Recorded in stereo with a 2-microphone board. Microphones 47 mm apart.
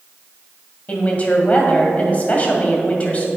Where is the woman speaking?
30° left (ahead or behind), 1.8 m.